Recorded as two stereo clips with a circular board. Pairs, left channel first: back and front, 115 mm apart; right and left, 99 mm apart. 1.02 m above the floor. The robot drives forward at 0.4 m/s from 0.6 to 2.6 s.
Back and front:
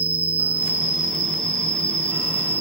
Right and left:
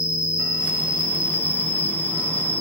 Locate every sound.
0.0 s an insect: 125° right, 0.8 m; by 2.6 s 160° right, 1.3 m